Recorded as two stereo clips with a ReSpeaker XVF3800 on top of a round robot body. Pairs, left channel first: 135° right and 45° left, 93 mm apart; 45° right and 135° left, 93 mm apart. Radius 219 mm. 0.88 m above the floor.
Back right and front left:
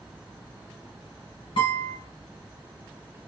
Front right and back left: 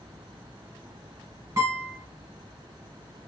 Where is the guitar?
165° right, 1.2 m.